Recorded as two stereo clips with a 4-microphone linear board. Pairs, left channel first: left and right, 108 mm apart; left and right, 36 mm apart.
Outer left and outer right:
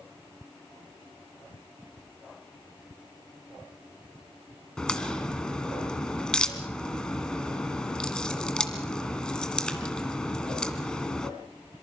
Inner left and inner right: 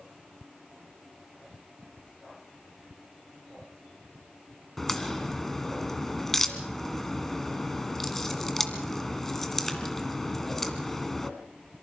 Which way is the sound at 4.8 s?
10° left (ahead or behind).